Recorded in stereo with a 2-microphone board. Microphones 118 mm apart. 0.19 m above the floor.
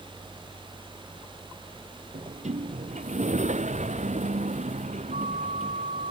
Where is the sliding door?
85° right.